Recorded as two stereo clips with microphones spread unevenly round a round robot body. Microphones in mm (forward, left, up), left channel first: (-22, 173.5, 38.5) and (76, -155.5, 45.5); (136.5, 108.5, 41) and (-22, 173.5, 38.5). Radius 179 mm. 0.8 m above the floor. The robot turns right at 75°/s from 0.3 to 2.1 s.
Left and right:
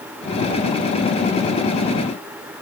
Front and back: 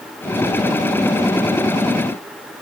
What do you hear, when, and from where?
Only background noise.